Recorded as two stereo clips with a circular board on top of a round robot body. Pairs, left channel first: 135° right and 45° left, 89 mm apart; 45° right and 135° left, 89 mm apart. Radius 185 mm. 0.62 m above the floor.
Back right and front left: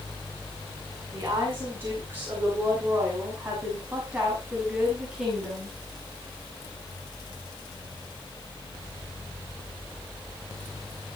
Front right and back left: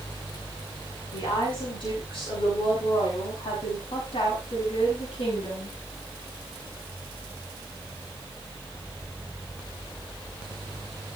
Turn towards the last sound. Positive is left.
turn(degrees=-40)